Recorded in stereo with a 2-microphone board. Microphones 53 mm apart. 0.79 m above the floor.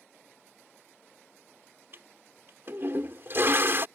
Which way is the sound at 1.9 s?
50° right (ahead or behind).